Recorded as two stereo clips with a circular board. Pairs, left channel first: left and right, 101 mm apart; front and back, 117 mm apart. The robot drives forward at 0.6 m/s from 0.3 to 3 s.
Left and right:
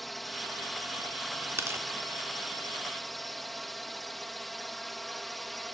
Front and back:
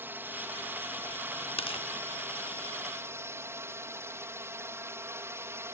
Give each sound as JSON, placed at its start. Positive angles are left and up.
{"t": 0.0, "sound": "a drone", "azimuth_deg": 175}
{"t": 1.6, "sound": "tearing paper", "azimuth_deg": -30}